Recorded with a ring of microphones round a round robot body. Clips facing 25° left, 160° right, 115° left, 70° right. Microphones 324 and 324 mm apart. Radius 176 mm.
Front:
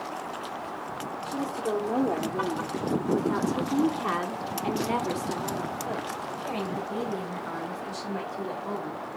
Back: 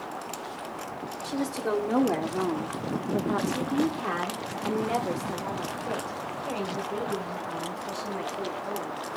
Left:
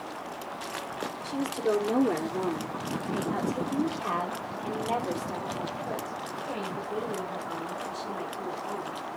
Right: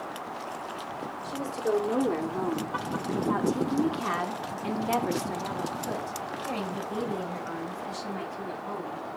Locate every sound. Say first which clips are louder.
1.2 s a woman speaking: back 2 dB, left 2 dB; straight behind, 1.4 m; by 9.0 s 25° right, 3.5 m